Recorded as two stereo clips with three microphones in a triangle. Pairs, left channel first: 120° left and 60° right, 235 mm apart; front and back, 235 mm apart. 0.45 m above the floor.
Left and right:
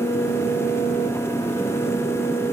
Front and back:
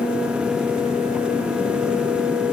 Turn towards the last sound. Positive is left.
No sound to turn to.